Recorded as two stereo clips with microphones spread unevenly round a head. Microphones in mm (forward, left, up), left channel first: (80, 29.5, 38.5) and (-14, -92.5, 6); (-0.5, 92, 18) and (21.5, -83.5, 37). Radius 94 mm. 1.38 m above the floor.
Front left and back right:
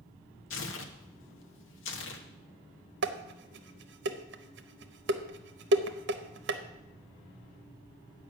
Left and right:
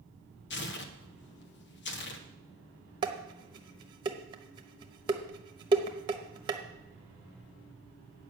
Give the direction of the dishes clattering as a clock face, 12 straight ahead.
5 o'clock.